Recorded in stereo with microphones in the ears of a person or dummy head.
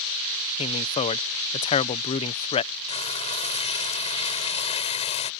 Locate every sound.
0.6 s a man speaking: 30° left (ahead or behind)
2.9 s frying: 30° left (ahead or behind)